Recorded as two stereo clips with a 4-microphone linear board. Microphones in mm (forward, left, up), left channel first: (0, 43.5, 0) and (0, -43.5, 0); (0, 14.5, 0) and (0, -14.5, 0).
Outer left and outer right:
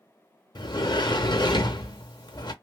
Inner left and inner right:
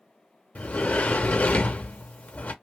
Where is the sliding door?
50° left (ahead or behind), 0.5 m.